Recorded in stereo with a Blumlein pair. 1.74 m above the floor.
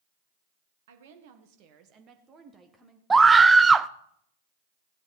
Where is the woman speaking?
60° right, 1.8 m; by 3.0 s 5° right, 1.7 m.